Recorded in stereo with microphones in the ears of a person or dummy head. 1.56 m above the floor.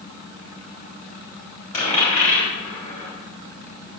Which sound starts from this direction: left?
A dropped coin, at 1.7 s.